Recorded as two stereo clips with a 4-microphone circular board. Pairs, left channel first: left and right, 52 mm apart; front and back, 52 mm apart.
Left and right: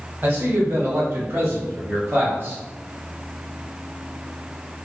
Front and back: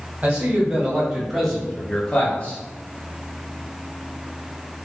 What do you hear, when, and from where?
0.2 s a man speaking: 120° right, 1.8 m; by 2.6 s 55° right, 1.7 m